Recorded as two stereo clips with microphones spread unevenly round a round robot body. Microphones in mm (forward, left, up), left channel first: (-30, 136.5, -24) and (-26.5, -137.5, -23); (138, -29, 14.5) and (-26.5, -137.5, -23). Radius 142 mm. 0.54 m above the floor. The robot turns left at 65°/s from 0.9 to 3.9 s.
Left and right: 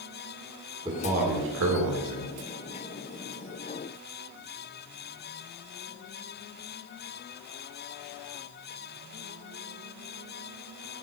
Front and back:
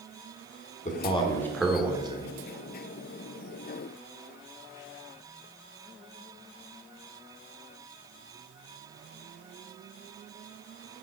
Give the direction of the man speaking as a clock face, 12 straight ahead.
1 o'clock.